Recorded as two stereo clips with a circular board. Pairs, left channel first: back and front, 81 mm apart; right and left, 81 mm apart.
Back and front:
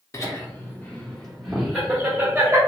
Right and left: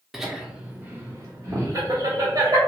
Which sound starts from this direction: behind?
Laughter, at 0.1 s.